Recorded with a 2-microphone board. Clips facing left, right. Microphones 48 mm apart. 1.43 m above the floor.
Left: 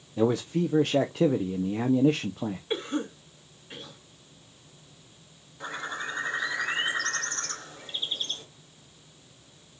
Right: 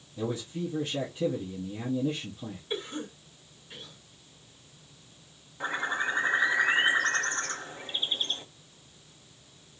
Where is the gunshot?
I don't hear a gunshot.